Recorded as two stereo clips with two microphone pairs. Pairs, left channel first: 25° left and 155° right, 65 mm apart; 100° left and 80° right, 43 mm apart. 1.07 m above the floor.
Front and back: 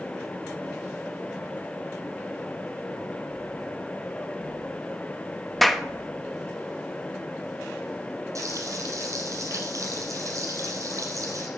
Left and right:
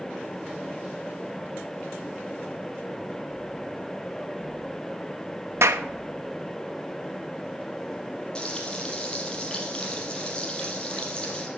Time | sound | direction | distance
5.6 | a clap | 60° right | 1.0 m
8.3 | frying | 170° left | 4.5 m